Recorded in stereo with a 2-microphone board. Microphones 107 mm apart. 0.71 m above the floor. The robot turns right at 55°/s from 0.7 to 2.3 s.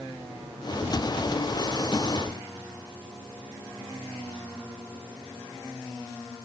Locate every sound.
Only background noise.